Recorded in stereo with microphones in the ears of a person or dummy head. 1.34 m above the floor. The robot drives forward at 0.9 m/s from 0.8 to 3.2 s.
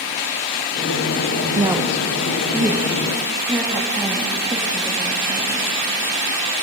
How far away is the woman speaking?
About 0.7 m.